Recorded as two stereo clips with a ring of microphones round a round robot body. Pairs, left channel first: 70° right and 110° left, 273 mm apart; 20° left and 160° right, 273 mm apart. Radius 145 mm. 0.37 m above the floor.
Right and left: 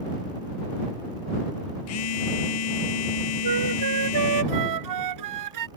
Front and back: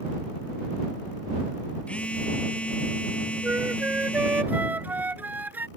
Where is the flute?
120° left.